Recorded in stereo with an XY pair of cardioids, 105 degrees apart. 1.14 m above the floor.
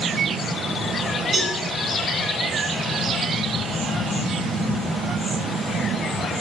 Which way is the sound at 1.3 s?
65° right.